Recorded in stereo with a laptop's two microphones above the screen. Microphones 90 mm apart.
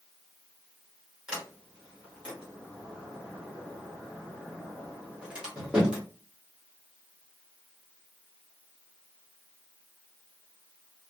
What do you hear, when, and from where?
1.3 s a sliding door: 10° right (ahead or behind), 1.0 m